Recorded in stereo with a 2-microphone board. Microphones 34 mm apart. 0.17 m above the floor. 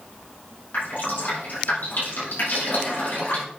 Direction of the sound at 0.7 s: 75° left (ahead or behind).